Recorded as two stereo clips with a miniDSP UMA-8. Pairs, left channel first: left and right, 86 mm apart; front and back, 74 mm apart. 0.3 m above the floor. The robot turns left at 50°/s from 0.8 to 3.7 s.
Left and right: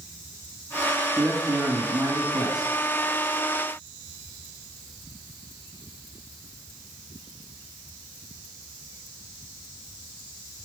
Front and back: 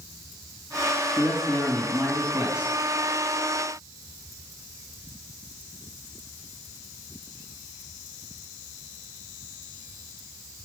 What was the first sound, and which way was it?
A man speaking, 35° right.